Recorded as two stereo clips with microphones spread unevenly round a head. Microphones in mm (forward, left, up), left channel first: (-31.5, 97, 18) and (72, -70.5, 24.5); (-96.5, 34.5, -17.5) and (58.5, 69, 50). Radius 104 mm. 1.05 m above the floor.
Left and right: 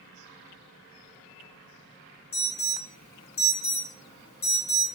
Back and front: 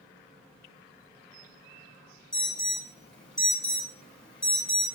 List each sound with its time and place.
2.3 s an alarm: 105° left, 1.4 m